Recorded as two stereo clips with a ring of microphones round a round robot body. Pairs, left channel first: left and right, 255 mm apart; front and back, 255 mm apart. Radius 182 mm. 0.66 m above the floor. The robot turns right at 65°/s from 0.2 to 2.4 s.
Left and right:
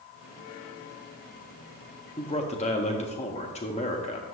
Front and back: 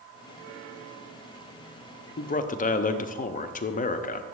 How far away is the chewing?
I don't hear chewing.